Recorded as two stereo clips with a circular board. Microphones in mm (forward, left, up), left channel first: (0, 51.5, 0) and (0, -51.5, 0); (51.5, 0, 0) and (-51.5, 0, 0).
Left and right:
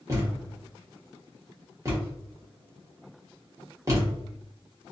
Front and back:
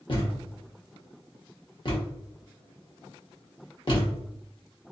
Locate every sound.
0.1 s a thud: 35° right, 1.1 m